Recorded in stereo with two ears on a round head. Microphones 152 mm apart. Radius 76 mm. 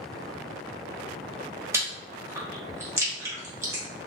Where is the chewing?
15° right (ahead or behind), 0.8 m.